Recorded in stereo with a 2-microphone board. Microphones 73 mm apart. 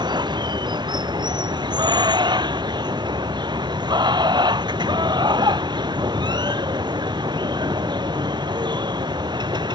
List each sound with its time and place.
0.0 s running water: 85° right